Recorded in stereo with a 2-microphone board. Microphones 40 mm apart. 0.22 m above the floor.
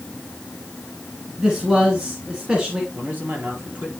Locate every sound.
1.4 s a man speaking: 20° right (ahead or behind), 3 m
2.9 s a man speaking: 45° right (ahead or behind), 4.5 m